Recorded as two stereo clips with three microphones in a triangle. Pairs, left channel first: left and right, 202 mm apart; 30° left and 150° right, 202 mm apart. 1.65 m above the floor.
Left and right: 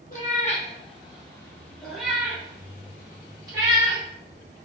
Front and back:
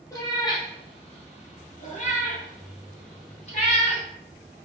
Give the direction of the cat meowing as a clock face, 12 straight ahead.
9 o'clock.